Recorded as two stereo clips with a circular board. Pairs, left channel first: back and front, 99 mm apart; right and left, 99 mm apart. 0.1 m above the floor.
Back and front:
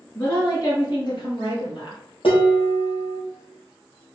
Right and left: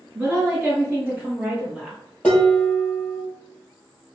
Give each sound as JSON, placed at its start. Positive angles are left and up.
{"t": 0.1, "sound": "a woman speaking", "azimuth_deg": 145, "distance_m": 1.4}
{"t": 2.2, "sound": "dishes clattering", "azimuth_deg": -165, "distance_m": 1.8}